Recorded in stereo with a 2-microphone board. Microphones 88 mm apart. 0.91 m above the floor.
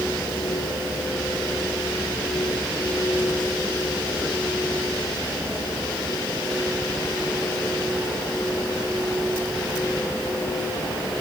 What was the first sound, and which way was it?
Only background noise.